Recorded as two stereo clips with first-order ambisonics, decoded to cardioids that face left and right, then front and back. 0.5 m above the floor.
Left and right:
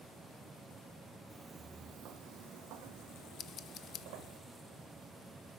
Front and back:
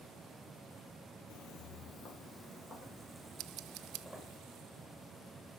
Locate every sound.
1.3 s footsteps: 10° right, 0.8 m; by 4.4 s 85° right, 3 m
3.4 s scissors: 145° left, 0.6 m